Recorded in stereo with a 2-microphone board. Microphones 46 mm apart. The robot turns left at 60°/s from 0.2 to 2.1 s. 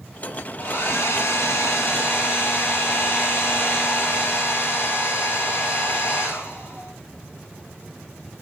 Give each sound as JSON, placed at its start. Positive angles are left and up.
{"t": 0.6, "sound": "a hair dryer", "azimuth_deg": 140, "distance_m": 7.5}